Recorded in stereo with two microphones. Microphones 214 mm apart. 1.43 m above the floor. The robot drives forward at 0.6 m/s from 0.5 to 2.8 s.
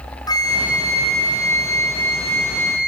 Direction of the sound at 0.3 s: 20° left (ahead or behind).